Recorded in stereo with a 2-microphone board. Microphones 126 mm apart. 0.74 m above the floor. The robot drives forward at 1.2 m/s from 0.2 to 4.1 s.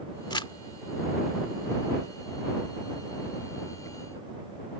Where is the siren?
No siren in this recording.